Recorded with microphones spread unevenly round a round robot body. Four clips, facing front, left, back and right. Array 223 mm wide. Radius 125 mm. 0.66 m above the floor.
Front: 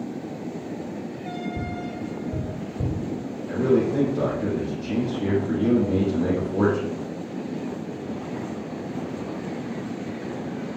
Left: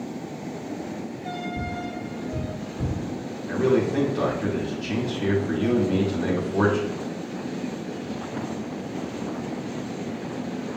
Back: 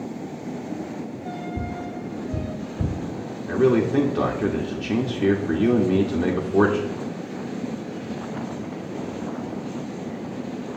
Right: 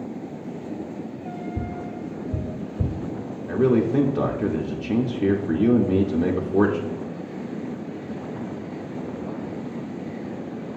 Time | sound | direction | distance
1.6 | tapping | 75° right | 2 m
3.5 | a man speaking | 105° right | 1.5 m